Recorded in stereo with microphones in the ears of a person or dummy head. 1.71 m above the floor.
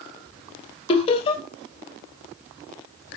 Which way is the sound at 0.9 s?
30° left (ahead or behind).